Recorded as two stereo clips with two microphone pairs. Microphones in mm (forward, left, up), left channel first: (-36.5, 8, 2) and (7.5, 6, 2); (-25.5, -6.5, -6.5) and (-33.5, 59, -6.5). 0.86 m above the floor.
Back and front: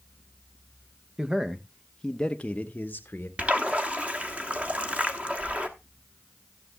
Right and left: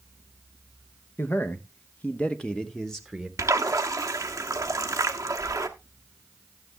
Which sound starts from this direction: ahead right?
A man speaking, at 1.2 s.